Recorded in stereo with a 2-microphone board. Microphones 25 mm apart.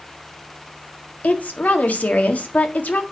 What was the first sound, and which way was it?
A woman speaking, 75° left (ahead or behind).